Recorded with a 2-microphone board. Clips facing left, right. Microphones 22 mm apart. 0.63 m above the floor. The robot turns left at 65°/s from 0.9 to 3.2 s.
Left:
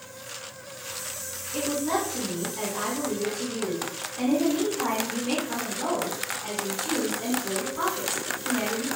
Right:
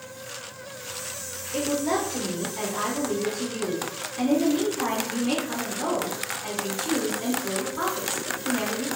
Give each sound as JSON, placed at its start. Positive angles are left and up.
{"t": 1.5, "sound": "a woman speaking", "azimuth_deg": -55, "distance_m": 1.3}